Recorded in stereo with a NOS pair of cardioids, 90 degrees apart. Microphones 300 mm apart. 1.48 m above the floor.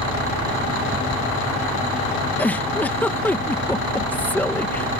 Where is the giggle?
5° left.